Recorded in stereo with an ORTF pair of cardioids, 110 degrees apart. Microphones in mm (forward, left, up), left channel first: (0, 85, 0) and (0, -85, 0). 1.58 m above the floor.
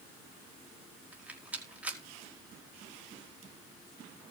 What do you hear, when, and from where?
1.1 s a rattle: 10° right, 4.5 m